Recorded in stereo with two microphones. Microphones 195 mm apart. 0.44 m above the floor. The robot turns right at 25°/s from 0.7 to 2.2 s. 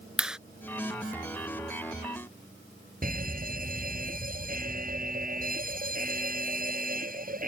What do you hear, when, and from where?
0.2 s a clap: 5° right (ahead or behind)
3.0 s a fire alarm: 45° right (ahead or behind)